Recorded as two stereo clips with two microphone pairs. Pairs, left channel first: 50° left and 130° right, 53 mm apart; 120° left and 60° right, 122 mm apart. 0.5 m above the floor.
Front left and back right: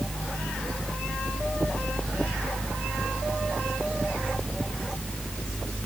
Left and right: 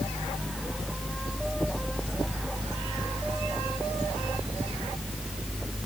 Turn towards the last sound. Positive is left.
No sound to turn to.